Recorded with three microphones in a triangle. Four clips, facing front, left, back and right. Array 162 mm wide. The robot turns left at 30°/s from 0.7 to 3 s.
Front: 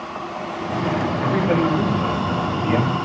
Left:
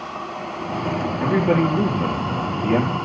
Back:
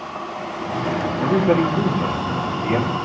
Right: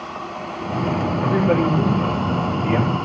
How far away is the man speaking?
About 4 m.